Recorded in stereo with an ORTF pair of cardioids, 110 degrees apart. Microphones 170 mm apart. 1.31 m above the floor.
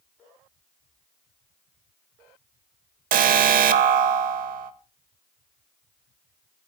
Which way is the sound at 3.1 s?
55° right.